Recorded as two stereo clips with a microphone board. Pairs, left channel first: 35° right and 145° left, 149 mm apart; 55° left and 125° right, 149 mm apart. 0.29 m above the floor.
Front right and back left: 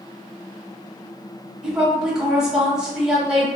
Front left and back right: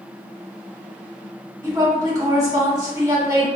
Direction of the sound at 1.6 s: 135° right.